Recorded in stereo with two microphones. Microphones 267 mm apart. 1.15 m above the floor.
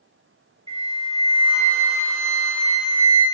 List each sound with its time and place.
0.7 s a flute: 20° right (ahead or behind), 1.3 m